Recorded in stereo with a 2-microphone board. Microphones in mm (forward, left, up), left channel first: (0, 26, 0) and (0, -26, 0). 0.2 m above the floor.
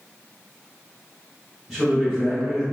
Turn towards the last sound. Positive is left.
turn(degrees=-10)  # may be behind; listen again after turning